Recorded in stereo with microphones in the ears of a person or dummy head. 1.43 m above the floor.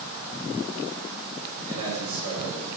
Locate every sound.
1.7 s a man speaking: 85° right, 6.5 m